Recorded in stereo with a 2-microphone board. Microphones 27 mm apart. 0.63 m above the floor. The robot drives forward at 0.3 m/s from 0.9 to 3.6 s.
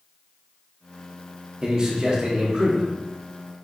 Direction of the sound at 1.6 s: 25° right (ahead or behind).